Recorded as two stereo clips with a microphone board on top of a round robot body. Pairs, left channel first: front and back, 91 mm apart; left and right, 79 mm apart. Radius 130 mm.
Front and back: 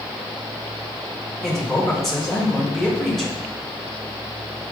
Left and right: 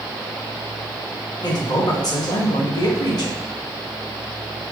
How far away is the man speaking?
About 1.8 m.